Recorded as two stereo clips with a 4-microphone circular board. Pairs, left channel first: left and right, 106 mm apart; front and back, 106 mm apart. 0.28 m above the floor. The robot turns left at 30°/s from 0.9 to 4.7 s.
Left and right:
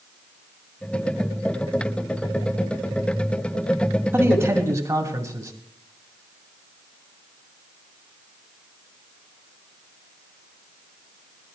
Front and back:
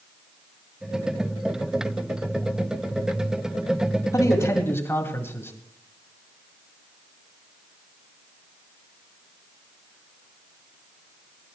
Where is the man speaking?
35° right, 2 m; by 5.5 s 55° right, 2 m.